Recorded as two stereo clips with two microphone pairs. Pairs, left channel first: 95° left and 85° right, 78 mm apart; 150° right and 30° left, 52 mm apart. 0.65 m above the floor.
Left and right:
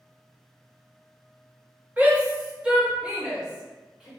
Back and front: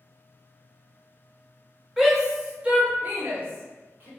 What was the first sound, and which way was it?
A shout, 50° right.